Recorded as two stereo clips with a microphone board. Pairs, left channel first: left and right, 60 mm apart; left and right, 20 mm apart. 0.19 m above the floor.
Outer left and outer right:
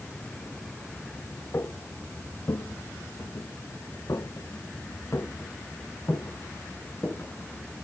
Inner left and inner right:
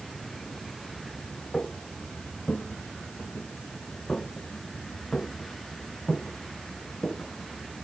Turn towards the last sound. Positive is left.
turn(degrees=35)  # may be behind; listen again after turning